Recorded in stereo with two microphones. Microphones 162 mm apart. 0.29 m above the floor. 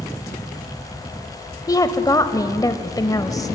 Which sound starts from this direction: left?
A woman speaking, at 1.7 s.